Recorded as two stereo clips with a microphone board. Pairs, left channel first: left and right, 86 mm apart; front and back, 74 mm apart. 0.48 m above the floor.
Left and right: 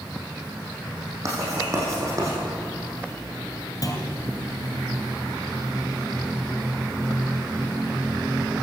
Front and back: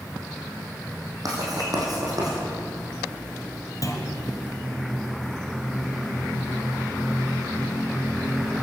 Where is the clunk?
45° left, 2.5 m.